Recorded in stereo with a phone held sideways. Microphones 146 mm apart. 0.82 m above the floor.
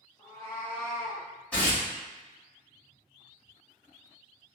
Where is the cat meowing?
25° left (ahead or behind), 1.2 m; by 1.2 s 15° right (ahead or behind), 0.7 m.